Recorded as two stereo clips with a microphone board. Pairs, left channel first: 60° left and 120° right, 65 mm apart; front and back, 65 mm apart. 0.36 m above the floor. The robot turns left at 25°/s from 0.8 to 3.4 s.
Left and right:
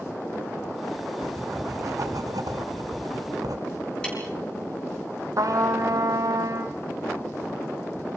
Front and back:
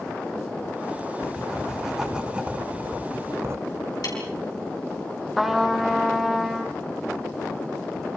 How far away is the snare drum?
About 7 m.